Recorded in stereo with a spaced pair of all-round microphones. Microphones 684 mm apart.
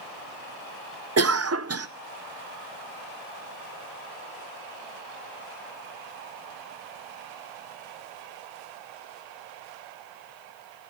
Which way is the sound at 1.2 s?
25° right (ahead or behind).